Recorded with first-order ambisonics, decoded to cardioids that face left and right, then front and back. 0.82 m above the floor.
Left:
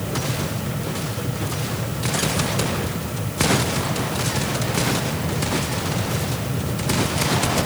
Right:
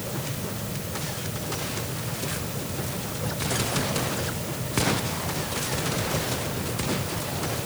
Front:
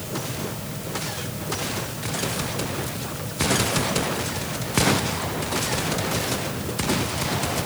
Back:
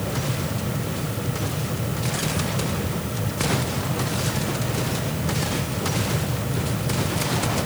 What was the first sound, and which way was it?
Only background noise.